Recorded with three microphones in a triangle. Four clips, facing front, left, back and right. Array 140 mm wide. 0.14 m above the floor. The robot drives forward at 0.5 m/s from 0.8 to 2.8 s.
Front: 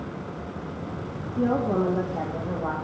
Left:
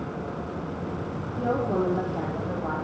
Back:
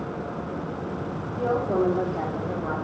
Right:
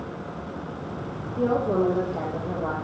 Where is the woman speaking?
50° right, 6.5 m; by 2.7 s 55° right, 6.5 m.